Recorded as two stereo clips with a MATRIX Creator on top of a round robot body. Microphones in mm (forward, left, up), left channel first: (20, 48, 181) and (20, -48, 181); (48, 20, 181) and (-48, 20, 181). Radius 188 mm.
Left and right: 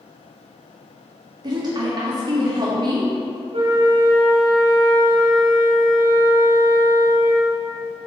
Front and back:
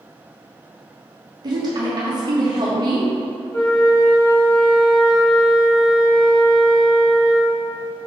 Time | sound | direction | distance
1.4 | a woman speaking | 135° right | 1.5 m
3.5 | a flute | 70° right | 1.8 m